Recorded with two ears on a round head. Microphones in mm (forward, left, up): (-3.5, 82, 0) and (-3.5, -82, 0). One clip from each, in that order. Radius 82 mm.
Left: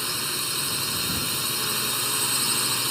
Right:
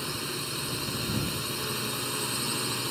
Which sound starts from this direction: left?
A drone, at 0.0 s.